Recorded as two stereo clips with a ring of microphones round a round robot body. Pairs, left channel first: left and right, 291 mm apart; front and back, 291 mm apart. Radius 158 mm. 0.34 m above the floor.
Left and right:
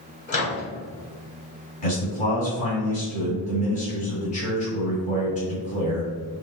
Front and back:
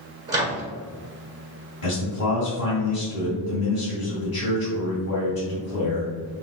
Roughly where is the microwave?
Behind left.